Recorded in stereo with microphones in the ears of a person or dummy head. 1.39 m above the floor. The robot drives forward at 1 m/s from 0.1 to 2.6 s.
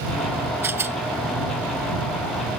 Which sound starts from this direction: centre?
A rattle, at 0.6 s.